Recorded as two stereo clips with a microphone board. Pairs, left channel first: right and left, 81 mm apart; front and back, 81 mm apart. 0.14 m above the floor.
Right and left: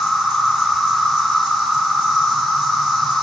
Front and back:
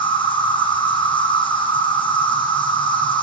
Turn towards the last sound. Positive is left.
turn(degrees=5)